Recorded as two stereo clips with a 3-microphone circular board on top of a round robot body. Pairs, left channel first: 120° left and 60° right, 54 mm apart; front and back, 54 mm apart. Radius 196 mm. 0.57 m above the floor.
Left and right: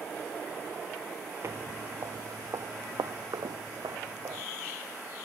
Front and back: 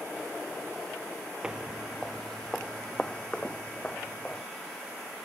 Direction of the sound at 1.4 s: 105° right.